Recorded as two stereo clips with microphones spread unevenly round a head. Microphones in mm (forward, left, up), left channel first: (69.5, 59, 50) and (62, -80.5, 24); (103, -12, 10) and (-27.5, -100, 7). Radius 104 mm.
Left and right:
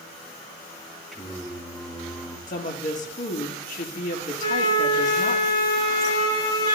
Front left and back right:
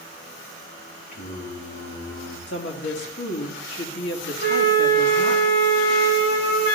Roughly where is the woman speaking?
Ahead left.